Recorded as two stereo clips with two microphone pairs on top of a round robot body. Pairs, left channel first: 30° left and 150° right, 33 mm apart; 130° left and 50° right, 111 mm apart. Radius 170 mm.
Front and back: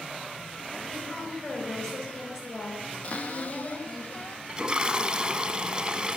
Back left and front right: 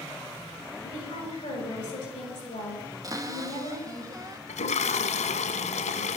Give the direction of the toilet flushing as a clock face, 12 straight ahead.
7 o'clock.